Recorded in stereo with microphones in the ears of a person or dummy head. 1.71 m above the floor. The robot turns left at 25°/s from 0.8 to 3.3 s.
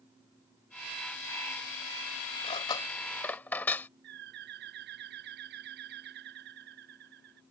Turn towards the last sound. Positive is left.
turn(degrees=-55)  # may be behind; listen again after turning